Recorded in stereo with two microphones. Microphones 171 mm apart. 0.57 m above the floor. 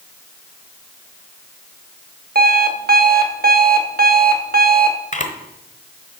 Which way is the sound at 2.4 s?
60° right (ahead or behind).